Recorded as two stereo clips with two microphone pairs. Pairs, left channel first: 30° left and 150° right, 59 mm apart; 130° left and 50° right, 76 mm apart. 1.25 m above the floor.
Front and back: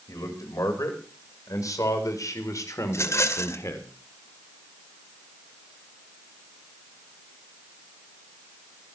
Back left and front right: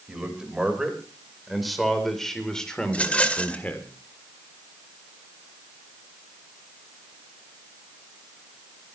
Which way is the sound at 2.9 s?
60° left.